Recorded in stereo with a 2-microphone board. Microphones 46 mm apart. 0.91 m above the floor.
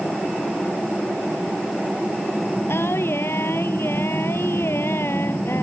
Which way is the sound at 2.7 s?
65° left (ahead or behind).